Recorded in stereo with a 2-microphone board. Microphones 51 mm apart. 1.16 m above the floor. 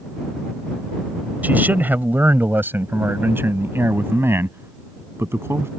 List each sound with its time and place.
1.4 s a man speaking: 30° right (ahead or behind); by 5.7 s 55° right (ahead or behind)